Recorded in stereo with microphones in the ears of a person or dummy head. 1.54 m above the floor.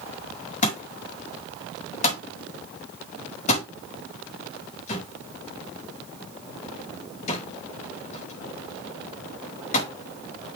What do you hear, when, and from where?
0.6 s a thud: 40° left (ahead or behind), 5.5 m